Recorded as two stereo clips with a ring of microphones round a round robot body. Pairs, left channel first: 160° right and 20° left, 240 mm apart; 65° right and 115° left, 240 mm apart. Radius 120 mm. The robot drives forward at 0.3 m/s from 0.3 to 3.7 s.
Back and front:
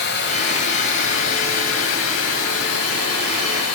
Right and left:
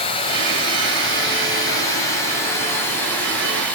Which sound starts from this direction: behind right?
Running water, at 0.0 s.